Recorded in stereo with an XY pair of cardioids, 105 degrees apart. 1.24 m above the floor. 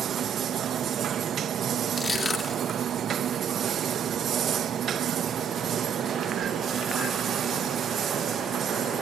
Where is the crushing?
40° left, 3 m.